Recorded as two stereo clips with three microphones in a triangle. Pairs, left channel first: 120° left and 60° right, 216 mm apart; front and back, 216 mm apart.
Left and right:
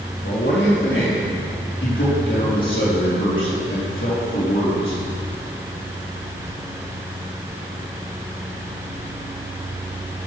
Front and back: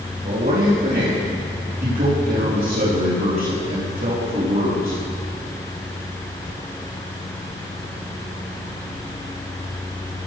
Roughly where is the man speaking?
Behind left.